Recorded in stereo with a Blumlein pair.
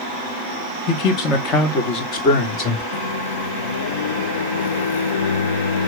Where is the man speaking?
35° left, 2 m.